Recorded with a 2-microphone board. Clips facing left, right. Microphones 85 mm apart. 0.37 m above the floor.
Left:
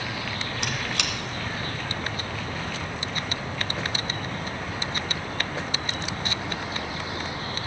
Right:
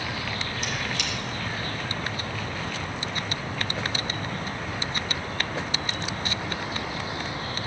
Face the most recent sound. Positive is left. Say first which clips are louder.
# left 2 dB
turn(degrees=80)